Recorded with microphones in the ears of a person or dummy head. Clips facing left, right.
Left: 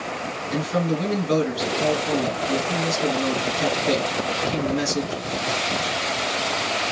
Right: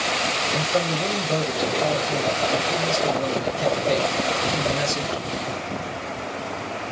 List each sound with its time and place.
0.5 s a man speaking: 85° left, 2 m